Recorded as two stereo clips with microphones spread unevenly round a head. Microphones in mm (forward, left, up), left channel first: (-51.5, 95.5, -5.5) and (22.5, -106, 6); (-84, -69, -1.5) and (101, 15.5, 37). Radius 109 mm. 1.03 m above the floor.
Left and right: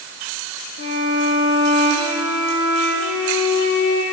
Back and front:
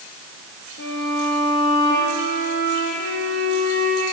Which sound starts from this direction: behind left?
A violin, at 0.8 s.